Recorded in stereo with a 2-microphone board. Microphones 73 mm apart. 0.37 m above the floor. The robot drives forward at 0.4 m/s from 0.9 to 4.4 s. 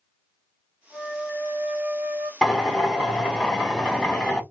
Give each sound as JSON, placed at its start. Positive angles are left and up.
{"t": 0.9, "sound": "a flute", "side_deg": -20, "distance_m": 1.1}
{"t": 2.4, "sound": "a drill", "side_deg": 0, "distance_m": 1.3}